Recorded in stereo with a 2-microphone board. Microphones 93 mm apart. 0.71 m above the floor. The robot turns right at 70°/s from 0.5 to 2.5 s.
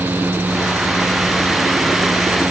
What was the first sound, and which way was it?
Only background noise.